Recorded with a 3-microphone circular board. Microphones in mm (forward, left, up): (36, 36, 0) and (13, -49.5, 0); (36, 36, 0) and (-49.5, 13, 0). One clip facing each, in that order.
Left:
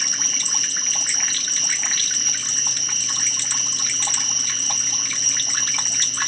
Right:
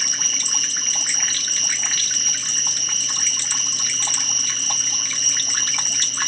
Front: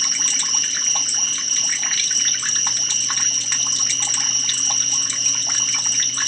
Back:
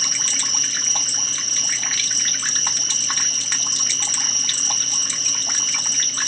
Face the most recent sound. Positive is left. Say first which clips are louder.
# even, even
turn(degrees=135)